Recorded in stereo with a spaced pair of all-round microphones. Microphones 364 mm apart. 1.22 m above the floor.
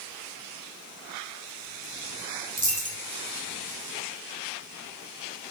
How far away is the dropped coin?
About 3 m.